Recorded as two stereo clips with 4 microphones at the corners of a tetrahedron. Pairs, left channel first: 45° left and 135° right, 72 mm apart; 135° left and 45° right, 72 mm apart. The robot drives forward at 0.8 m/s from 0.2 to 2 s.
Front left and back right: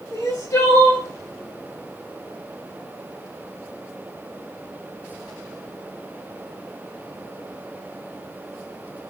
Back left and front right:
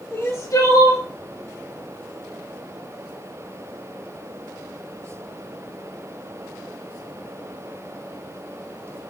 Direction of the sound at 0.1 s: 80° left.